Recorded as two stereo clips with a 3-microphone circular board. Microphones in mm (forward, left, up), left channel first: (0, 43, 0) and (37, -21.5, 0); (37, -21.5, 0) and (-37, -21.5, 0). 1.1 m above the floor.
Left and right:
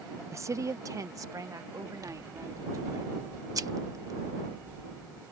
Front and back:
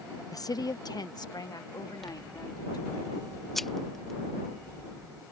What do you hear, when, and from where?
0.3 s a woman speaking: 20° right
2.0 s scissors: 85° right